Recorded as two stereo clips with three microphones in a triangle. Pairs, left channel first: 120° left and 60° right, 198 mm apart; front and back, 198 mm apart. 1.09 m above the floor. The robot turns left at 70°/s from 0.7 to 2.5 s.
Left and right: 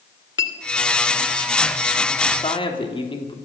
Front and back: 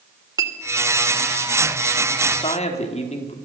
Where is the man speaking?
70° left, 3 m; by 3.4 s 55° left, 3 m.